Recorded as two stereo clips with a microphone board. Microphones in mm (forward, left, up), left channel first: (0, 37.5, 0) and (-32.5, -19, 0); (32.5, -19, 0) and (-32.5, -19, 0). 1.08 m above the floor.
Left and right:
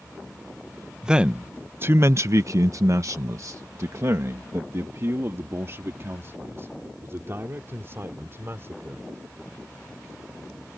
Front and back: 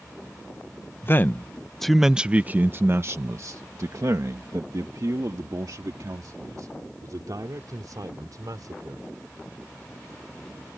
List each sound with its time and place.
1.0 s a man speaking: 45° right; by 9.1 s 170° right